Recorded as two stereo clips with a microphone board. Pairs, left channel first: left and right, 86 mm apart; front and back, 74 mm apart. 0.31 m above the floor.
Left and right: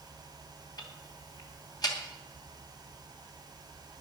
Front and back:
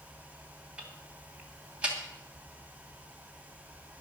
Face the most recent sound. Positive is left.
turn(degrees=110)